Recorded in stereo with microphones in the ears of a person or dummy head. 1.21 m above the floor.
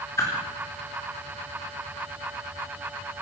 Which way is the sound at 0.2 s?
15° left (ahead or behind).